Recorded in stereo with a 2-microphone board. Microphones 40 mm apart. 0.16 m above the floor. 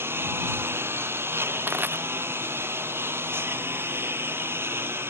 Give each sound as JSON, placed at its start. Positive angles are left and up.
{"t": 0.0, "sound": "a lawn mower", "side_deg": -80}
{"t": 1.7, "sound": "crushing", "side_deg": -55}